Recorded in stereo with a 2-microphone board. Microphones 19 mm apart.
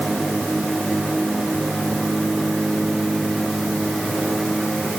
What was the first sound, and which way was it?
Only background noise.